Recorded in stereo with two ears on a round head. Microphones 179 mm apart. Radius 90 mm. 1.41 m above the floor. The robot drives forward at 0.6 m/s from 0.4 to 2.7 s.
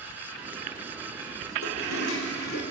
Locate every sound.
1.6 s a toilet flushing: 80° left, 3.5 m; by 2.6 s 75° left (ahead or behind), 3.5 m